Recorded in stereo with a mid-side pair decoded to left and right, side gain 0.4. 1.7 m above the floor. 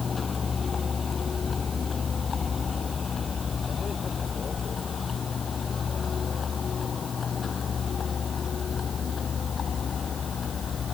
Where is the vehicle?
45° left; by 10.9 s 55° left.